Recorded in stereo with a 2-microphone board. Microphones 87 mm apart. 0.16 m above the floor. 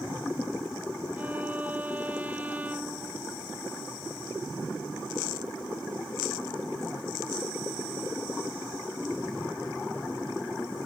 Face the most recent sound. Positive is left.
turn(degrees=-20)  # may be behind; listen again after turning